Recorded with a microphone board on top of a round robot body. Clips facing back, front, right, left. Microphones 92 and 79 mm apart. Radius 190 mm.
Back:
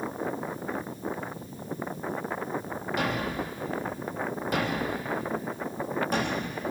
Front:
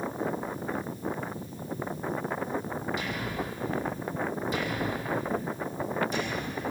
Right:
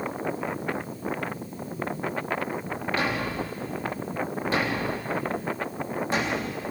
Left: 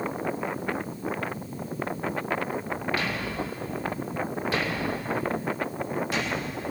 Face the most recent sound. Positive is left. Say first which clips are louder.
# back 4 dB, right 2 dB
turn(degrees=-155)